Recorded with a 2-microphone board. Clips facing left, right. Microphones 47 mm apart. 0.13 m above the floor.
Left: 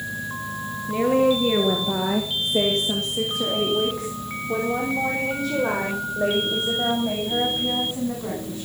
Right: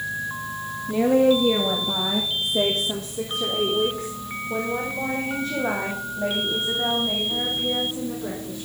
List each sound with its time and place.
0.9 s a woman speaking: 10° left (ahead or behind), 1.8 m; by 8.7 s 75° left (ahead or behind), 8 m